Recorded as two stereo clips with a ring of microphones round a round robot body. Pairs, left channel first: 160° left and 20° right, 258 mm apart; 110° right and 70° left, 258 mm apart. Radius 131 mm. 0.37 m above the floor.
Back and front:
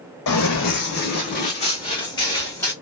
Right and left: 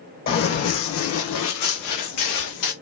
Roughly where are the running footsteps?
Behind.